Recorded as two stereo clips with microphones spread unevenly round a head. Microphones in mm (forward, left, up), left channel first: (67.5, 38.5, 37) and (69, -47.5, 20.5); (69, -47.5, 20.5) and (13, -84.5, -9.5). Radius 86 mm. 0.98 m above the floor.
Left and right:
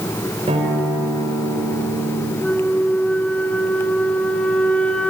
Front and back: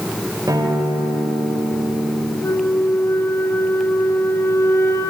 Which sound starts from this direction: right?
A guitar, at 0.5 s.